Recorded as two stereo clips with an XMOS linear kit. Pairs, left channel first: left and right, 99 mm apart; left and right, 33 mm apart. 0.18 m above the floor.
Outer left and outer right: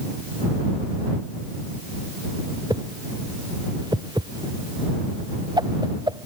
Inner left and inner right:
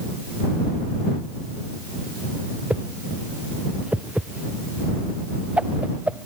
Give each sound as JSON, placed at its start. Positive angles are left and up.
{"t": 2.7, "sound": "a whoosh", "side_deg": -45}